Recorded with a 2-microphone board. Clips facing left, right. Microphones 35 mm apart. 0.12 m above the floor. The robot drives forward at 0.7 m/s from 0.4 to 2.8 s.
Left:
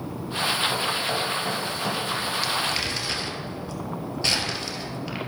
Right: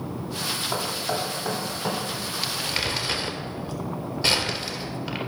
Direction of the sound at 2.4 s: 10° right (ahead or behind).